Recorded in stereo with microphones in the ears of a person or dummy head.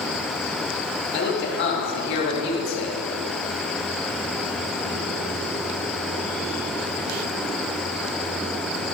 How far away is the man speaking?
About 3.5 m.